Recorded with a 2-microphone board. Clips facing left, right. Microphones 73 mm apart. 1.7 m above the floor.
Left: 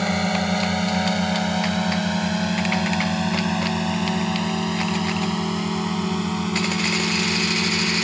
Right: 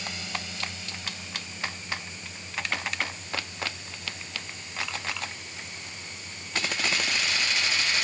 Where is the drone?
55° left (ahead or behind); by 8.0 s 85° left.